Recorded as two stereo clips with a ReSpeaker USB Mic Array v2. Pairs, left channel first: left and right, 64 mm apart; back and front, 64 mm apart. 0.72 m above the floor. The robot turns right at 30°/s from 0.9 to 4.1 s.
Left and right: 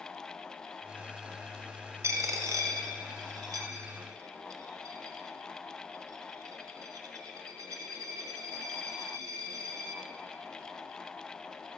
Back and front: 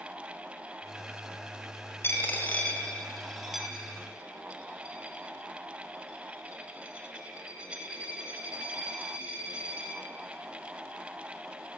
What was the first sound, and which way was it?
A dropped coin, 130° right.